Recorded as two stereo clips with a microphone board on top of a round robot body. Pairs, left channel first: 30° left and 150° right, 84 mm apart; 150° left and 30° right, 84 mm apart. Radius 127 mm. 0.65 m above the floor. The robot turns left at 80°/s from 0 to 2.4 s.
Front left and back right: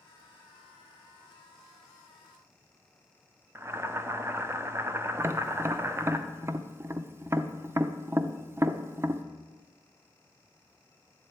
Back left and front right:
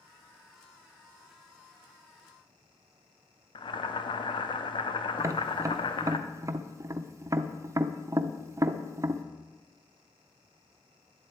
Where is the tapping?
85° right, 0.6 m.